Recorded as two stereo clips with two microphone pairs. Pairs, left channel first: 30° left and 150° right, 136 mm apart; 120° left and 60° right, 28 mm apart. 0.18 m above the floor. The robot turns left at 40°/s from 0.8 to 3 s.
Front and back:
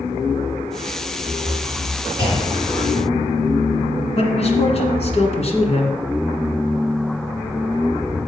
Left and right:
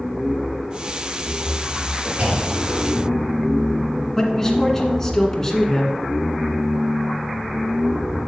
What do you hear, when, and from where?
2.2 s a clunk: 20° right, 4.5 m; by 2.9 s 50° right, 4.5 m
4.2 s a man speaking: 50° left, 1.8 m